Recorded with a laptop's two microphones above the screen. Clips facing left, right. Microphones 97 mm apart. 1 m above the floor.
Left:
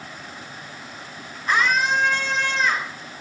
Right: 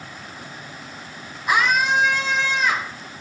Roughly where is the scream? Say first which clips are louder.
Right 1 dB; centre.